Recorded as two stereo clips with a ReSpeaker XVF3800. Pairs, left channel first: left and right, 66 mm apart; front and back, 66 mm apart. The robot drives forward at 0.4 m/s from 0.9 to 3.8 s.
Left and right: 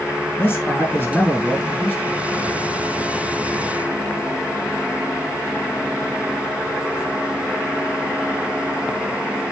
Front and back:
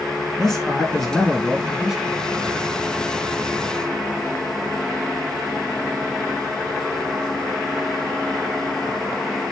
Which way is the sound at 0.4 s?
80° left.